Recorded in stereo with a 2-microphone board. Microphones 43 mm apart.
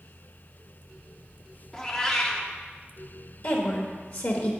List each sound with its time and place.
1.7 s a cat meowing: 15° left (ahead or behind), 0.8 m
3.4 s a woman speaking: 50° left (ahead or behind), 1.2 m